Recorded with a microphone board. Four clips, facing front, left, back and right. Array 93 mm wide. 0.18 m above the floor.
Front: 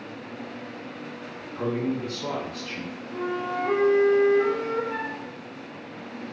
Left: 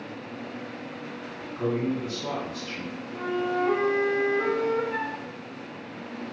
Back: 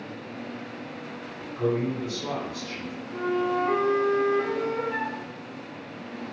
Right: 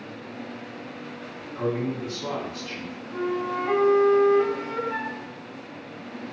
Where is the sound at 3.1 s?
80° right, 1.8 m.